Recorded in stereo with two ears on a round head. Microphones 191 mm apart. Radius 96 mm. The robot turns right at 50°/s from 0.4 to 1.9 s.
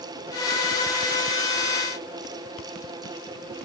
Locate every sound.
Only background noise.